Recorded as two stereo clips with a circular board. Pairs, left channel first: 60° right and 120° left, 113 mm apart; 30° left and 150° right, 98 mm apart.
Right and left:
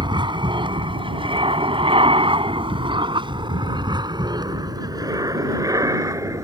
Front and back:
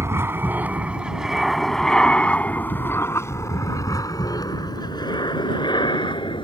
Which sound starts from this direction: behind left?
An aircraft, at 0.0 s.